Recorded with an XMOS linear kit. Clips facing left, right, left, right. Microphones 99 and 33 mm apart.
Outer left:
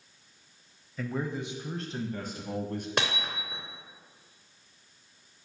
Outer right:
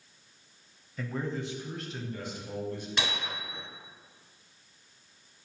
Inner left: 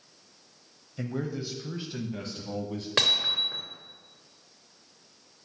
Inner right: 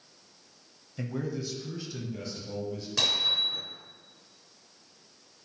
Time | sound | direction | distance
1.0 | a man speaking | centre (ahead or behind) | 1.0 m
3.0 | hammering | 50° left (ahead or behind) | 2.5 m